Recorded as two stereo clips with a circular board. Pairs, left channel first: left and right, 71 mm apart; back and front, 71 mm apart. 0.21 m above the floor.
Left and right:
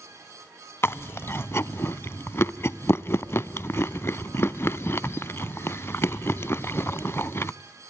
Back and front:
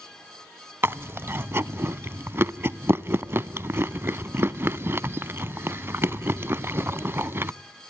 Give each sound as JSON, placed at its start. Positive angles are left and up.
{"t": 0.8, "sound": "chewing", "azimuth_deg": 45, "distance_m": 0.5}